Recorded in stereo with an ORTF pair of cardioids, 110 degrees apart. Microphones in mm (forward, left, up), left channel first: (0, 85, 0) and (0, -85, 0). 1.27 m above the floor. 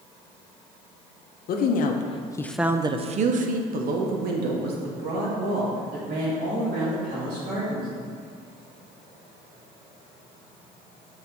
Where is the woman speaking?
65° left, 1.0 m; by 7.9 s 80° right, 4.5 m.